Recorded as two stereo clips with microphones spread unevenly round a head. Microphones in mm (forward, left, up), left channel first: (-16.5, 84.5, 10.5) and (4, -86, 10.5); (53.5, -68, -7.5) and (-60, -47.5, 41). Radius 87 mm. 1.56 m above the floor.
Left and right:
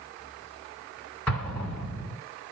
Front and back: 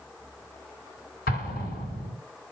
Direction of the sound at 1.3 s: 15° left.